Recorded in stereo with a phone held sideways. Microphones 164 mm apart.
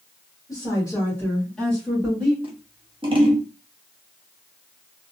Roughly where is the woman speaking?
Left.